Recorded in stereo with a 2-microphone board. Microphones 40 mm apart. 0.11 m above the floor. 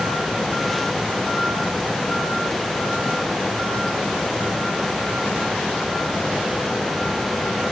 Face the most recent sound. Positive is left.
No sound to turn to.